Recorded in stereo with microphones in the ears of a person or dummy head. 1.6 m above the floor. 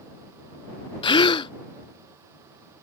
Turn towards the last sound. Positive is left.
turn(degrees=25)  # may be behind; listen again after turning